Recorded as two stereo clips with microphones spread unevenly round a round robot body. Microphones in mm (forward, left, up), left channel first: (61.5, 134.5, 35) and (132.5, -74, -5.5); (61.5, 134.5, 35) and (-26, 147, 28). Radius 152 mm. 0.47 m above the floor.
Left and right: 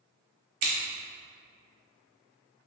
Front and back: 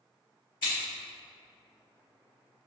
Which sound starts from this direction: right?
Scissors, at 0.6 s.